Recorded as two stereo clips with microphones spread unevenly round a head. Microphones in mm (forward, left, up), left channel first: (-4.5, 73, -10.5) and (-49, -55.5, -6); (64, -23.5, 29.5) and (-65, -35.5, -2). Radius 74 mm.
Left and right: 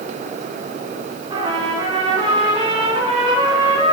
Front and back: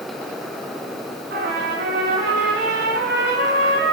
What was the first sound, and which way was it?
A trumpet, 160° right.